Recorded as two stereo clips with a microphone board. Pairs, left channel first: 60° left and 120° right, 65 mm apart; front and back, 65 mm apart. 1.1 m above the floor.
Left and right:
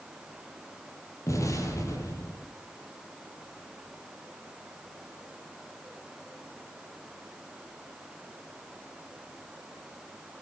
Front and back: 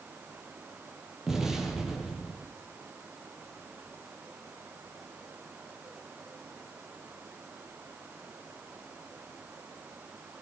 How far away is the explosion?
About 7.5 m.